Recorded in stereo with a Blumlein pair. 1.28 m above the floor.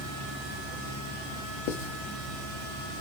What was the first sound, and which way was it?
Writing, 45° left.